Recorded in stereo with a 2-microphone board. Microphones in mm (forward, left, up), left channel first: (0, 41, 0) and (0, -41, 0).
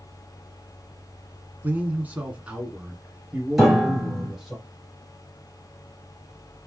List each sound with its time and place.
1.6 s a man speaking: 20° right (ahead or behind), 1.2 m; by 4.6 s 5° right (ahead or behind), 2.5 m
3.6 s a piano: centre (ahead or behind), 2.5 m